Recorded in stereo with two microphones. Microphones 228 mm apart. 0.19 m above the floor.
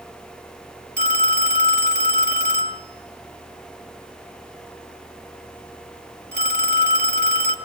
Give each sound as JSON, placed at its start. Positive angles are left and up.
{"t": 1.0, "sound": "a phone ringing", "side_deg": -50, "distance_m": 2.0}